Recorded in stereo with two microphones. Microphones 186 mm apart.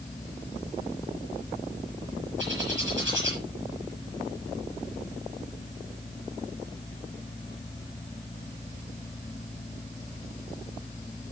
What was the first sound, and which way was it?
A bird, 75° right (ahead or behind).